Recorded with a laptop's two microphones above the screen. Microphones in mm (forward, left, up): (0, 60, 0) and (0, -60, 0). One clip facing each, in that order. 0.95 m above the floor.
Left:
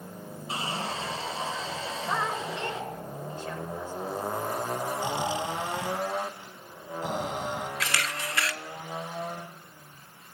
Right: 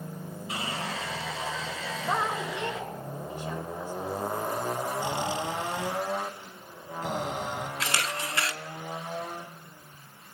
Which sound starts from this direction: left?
Sawing, at 0.5 s.